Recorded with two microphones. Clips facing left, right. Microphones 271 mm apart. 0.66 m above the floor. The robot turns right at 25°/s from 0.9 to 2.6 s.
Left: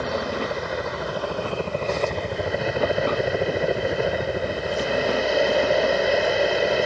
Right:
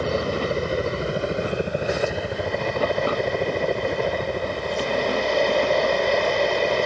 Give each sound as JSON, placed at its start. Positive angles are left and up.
{"t": 0.0, "sound": "a helicopter", "azimuth_deg": -40}